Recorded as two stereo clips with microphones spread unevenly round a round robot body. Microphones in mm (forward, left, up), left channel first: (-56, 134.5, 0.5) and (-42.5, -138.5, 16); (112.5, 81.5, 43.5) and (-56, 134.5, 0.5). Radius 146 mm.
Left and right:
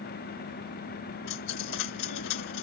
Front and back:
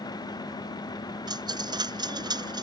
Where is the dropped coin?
90° left.